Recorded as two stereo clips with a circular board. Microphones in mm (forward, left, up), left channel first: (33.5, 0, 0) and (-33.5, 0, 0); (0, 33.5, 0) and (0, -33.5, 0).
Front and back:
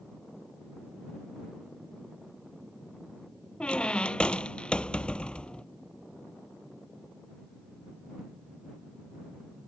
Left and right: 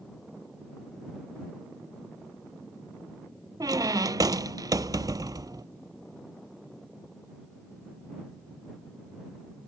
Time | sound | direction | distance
3.6 | a squeak | 75° right | ?